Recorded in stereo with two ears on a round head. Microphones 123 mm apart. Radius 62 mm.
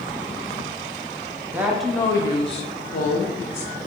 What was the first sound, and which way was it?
A woman speaking, 15° right (ahead or behind).